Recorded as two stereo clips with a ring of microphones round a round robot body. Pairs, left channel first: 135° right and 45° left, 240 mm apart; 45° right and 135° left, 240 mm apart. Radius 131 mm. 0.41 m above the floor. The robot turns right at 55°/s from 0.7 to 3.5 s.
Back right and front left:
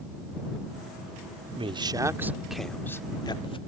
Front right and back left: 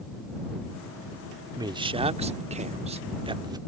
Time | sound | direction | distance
1.6 | a man speaking | 80° left | ?